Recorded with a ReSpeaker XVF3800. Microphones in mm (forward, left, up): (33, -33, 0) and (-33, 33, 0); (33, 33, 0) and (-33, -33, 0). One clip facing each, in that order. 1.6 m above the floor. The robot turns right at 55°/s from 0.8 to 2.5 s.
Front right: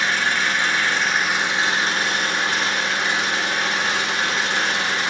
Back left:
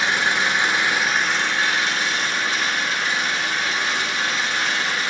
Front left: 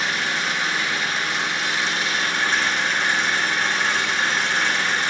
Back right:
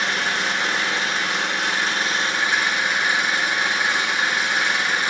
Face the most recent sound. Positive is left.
turn(degrees=-60)